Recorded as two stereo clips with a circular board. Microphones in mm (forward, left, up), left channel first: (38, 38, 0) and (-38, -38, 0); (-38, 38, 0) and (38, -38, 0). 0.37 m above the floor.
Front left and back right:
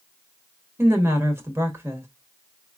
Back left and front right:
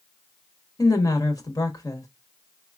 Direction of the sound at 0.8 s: 170° left.